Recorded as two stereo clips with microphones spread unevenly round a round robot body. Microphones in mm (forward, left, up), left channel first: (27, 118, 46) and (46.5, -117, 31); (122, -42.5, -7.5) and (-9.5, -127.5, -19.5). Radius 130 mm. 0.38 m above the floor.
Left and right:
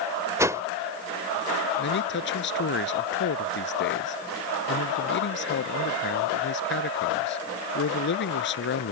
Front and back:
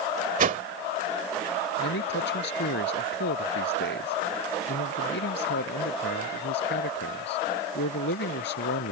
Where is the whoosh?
160° right.